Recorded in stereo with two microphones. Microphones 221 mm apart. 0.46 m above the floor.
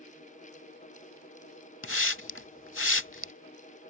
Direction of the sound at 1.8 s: 70° left (ahead or behind).